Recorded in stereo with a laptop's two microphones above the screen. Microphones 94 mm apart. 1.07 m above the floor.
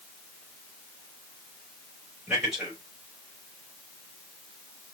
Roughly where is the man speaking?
Centre.